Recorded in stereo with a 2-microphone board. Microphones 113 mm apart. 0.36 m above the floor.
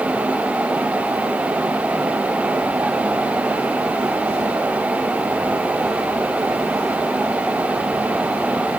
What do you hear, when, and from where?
Only background noise.